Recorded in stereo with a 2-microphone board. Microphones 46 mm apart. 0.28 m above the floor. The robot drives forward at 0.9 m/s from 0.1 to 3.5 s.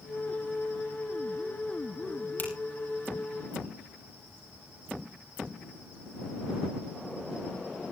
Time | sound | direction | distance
2.4 | a finger snap | 45° left (ahead or behind) | 6 m